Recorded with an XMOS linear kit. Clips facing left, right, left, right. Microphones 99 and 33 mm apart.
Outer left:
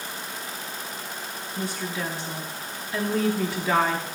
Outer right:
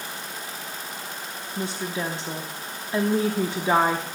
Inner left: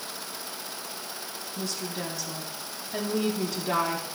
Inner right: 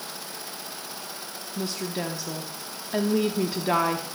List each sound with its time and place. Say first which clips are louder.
1.6 s a woman speaking: outer right 2 dB, inner right 4 dB; 25° right (ahead or behind), 0.8 m